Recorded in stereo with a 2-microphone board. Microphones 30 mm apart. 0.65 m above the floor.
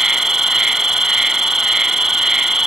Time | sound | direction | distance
0.0 | an insect | 20° right (ahead or behind) | 1.1 m